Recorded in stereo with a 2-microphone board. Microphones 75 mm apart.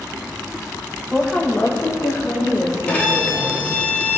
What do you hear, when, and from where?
1.1 s a woman speaking: 10° right (ahead or behind), 1.1 m; by 3.8 s 55° left (ahead or behind), 4.5 m
2.9 s a violin: 20° left (ahead or behind), 3 m